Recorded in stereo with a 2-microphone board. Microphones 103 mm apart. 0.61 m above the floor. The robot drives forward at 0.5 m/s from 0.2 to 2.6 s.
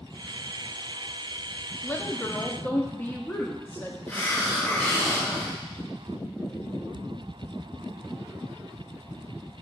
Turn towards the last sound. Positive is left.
turn(degrees=20)  # may be behind; listen again after turning